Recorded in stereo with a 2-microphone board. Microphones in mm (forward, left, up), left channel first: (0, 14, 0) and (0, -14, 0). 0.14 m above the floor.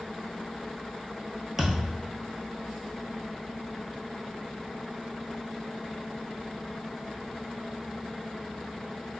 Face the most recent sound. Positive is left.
turn(degrees=-5)  # may be behind; listen again after turning